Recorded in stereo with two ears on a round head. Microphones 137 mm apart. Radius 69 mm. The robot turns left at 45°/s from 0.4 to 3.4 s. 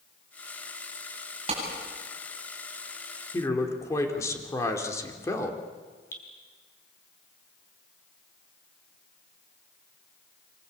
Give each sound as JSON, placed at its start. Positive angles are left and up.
{"t": 1.5, "sound": "a clap", "side_deg": -40, "distance_m": 9.5}
{"t": 3.3, "sound": "a man speaking", "side_deg": 20, "distance_m": 3.0}
{"t": 6.1, "sound": "dripping", "side_deg": 15, "distance_m": 5.0}